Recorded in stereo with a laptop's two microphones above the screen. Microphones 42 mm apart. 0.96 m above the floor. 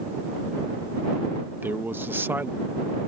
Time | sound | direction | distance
1.6 | a man speaking | 55° right (ahead or behind) | ?